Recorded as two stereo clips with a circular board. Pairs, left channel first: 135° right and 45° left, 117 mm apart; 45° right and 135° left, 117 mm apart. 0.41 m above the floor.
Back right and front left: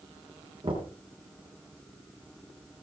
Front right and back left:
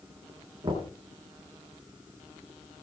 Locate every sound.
0.6 s knocking: 85° left, 5 m